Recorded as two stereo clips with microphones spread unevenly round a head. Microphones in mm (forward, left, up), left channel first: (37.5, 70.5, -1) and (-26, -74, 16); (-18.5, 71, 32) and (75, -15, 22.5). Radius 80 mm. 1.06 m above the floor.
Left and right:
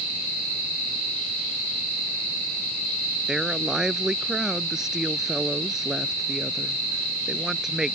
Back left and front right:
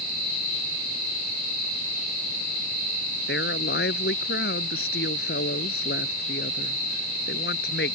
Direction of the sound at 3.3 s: 160° left.